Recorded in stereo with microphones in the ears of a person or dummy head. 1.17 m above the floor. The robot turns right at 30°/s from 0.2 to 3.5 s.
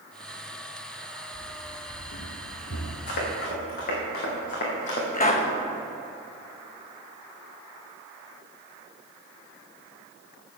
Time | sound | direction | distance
1.3 | running footsteps | 50° left (ahead or behind) | 2.5 m
3.1 | running footsteps | 55° left (ahead or behind) | 4 m
5.1 | a pop | 30° left (ahead or behind) | 1.3 m